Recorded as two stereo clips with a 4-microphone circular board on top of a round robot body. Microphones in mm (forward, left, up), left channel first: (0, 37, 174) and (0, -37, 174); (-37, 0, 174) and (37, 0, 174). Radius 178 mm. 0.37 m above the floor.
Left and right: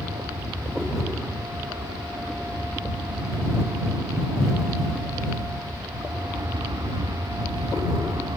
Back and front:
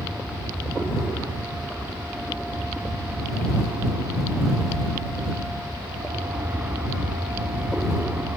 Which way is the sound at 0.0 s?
65° right.